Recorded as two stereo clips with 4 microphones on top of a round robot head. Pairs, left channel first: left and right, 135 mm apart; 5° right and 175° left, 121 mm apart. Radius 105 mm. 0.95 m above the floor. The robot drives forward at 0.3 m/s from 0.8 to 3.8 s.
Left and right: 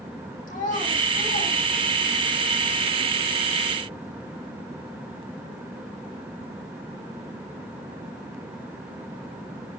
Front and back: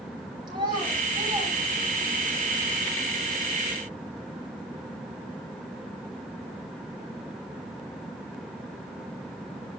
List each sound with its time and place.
0.5 s a child speaking: 120° left, 6.5 m